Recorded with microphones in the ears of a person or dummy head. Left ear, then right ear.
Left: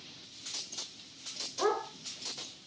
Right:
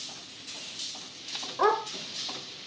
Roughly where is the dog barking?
Right.